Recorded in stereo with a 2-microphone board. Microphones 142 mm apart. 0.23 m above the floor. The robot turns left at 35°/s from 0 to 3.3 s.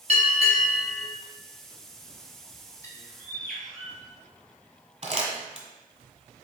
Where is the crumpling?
45° right (ahead or behind), 1.3 m.